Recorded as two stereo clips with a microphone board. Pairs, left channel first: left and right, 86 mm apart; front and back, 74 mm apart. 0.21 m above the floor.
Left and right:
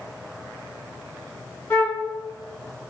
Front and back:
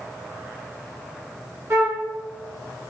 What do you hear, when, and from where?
1.7 s a flute: 145° left, 0.9 m